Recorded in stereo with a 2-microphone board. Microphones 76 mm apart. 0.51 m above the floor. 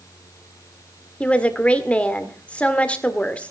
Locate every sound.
1.2 s a woman speaking: 15° left (ahead or behind), 1.7 m